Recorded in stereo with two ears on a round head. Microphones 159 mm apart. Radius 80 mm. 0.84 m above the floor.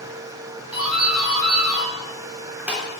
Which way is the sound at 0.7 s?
5° right (ahead or behind).